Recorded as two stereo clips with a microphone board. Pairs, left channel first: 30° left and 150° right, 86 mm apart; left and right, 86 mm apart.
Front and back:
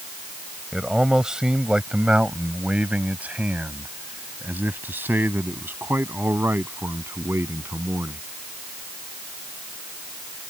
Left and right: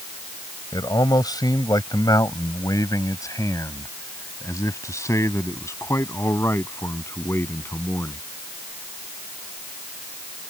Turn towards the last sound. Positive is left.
turn(degrees=150)